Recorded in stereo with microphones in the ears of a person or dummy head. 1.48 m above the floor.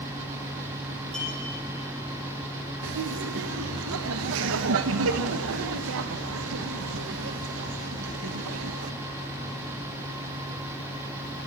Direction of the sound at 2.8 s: 70° right (ahead or behind).